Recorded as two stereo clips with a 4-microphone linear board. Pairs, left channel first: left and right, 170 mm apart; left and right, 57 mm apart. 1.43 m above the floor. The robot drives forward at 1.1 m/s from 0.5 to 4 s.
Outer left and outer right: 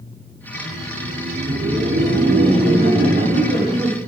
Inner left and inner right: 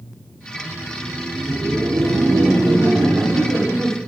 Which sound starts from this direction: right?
Laughter, at 0.5 s.